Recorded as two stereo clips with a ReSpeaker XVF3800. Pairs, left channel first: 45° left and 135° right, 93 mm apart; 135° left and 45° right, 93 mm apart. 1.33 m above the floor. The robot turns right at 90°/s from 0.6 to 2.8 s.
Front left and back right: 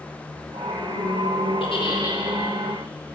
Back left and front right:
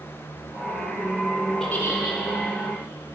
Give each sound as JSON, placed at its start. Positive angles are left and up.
{"t": 1.6, "sound": "a giggle", "azimuth_deg": 50, "distance_m": 1.1}